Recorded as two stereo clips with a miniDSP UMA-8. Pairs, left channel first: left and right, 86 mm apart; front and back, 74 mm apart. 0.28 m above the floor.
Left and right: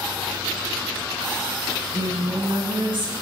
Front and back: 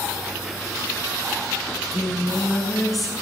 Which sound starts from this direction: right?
Singing, at 1.7 s.